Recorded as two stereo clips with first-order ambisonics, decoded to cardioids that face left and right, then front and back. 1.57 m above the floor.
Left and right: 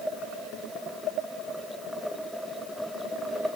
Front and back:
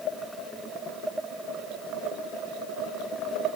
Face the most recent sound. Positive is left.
No sound to turn to.